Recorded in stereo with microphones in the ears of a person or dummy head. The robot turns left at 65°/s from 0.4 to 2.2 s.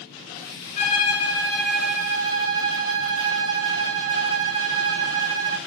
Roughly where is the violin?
Ahead left.